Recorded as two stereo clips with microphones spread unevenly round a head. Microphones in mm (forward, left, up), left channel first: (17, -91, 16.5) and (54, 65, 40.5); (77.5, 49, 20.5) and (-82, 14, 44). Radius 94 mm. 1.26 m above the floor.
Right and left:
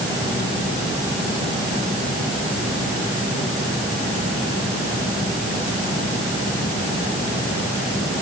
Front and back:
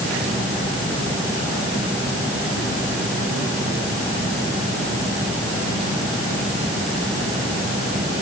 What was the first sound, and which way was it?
Only background noise.